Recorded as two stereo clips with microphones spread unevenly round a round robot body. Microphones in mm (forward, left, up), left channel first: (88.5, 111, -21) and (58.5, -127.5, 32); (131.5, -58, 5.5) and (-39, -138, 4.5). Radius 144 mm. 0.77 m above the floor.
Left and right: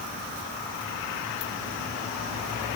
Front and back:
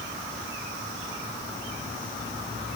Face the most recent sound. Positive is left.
No sound to turn to.